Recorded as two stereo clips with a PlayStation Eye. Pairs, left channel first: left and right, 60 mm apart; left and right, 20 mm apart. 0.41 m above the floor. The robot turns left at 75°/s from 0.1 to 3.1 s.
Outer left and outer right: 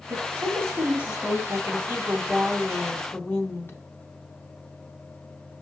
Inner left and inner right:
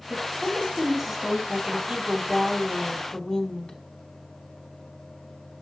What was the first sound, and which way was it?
A woman speaking, 90° right.